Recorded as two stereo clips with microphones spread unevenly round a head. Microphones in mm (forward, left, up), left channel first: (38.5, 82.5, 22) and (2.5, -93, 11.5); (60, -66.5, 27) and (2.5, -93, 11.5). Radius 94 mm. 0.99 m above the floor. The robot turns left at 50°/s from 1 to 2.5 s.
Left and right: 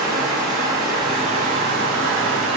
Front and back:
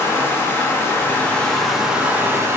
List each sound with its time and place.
0.0 s running water: 30° right, 0.8 m; by 2.6 s 105° right, 0.8 m